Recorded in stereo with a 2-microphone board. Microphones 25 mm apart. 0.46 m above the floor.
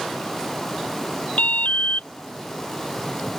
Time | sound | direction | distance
1.4 | an alarm | 80° left | ?